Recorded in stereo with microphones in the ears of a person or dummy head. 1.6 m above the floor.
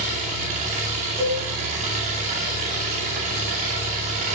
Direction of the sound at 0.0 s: 40° right (ahead or behind).